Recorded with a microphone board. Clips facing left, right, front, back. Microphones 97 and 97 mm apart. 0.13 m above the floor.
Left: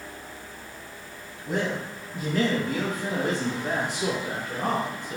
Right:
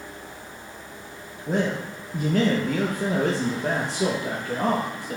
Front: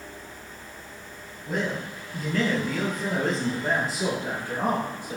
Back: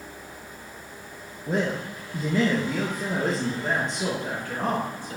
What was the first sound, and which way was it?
A man speaking, 135° right.